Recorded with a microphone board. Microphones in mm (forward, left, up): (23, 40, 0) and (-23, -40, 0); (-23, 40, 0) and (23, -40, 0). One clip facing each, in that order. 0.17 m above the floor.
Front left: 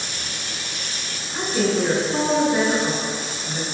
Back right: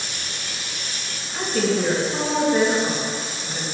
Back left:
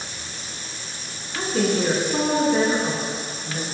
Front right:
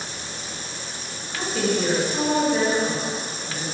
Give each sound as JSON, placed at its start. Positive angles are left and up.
{"t": 1.4, "sound": "a woman speaking", "azimuth_deg": 135, "distance_m": 1.8}